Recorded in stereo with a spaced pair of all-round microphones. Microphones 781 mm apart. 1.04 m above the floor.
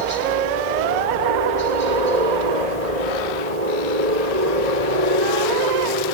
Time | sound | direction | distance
0.0 | a helicopter | 55° right (ahead or behind) | ?